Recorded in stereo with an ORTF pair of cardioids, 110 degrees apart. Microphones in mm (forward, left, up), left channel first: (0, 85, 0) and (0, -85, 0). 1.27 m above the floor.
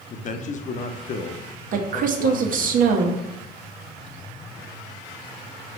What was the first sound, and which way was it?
A man speaking, 45° left.